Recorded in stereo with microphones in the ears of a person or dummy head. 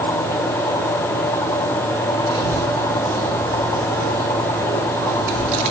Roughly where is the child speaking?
Right.